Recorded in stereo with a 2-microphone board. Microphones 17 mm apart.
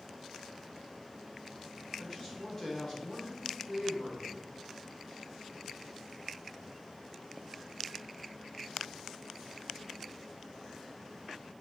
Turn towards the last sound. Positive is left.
turn(degrees=25)  # may be behind; listen again after turning